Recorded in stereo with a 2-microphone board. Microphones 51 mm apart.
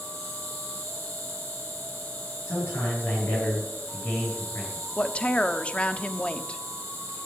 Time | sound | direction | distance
0.0 | an insect | 35° left (ahead or behind) | 6.5 m
2.5 | a man speaking | 55° left (ahead or behind) | 9 m
5.0 | a woman speaking | 25° left (ahead or behind) | 1.0 m